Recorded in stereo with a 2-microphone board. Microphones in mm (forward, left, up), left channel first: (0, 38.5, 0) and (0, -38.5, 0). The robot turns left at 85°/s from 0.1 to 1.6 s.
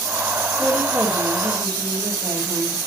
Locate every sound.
0.6 s a woman speaking: 15° right, 8.5 m; by 2.9 s 100° right, 8.5 m